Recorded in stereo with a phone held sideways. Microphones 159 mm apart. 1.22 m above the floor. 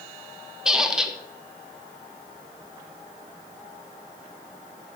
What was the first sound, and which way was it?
A squeak, 5° right (ahead or behind).